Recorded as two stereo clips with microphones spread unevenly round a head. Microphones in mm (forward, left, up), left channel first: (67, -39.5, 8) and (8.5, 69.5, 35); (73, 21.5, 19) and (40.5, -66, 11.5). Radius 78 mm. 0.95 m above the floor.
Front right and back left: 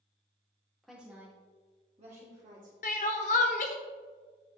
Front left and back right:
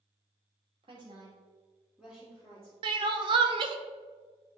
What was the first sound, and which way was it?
A woman speaking, 145° right.